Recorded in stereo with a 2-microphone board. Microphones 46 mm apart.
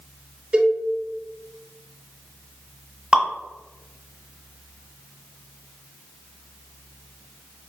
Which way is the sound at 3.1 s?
20° right (ahead or behind).